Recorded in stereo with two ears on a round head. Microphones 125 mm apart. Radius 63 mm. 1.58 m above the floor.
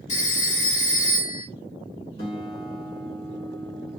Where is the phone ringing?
50° left (ahead or behind), 1.5 m.